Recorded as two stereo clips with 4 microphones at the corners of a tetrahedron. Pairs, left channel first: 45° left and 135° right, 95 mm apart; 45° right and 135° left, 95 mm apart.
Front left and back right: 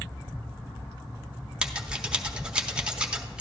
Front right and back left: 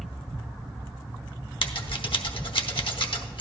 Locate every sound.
1.6 s scissors: 55° right, 0.8 m